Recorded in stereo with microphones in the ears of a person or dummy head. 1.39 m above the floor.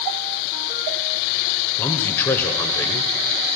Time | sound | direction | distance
1.8 | a man speaking | 15° left (ahead or behind) | 0.8 m